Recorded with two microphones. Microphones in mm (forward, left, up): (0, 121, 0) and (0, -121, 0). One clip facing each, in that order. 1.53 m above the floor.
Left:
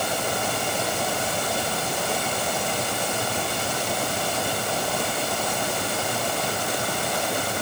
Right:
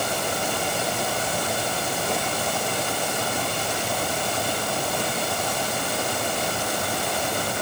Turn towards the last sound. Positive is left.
No sound to turn to.